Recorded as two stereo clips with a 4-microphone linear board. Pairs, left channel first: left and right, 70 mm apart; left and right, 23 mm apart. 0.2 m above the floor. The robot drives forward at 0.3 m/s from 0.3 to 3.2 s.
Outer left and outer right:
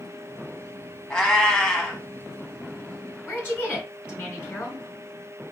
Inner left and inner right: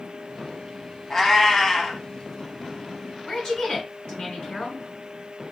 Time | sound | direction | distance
1.1 | a cat meowing | 10° left (ahead or behind) | 0.8 m
3.2 | a woman speaking | 25° left (ahead or behind) | 1.9 m